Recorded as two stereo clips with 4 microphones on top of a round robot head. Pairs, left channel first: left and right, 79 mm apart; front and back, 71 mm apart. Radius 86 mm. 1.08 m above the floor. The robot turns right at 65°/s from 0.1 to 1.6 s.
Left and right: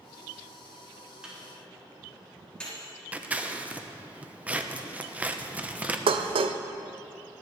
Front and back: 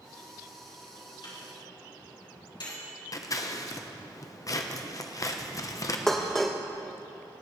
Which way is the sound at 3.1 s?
20° right.